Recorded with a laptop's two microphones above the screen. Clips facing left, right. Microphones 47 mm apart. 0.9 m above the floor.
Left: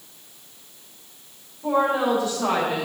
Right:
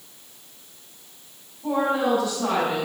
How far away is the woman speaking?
About 4 m.